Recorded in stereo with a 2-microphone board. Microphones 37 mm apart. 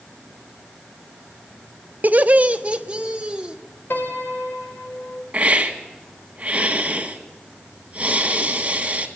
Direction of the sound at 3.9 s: 70° left (ahead or behind).